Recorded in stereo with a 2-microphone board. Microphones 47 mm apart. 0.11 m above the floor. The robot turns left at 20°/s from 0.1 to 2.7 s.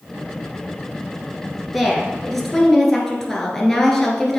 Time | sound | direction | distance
1.7 | a woman speaking | 5° right (ahead or behind) | 1.8 m